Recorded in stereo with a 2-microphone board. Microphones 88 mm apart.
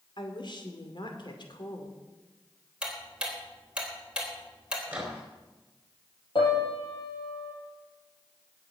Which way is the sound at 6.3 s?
60° left (ahead or behind).